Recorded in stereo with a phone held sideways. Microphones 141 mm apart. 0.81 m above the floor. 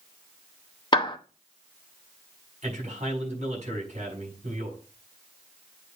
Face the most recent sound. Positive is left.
turn(degrees=-55)  # may be behind; listen again after turning